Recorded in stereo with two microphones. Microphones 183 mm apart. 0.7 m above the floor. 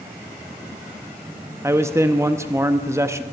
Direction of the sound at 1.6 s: 15° right (ahead or behind).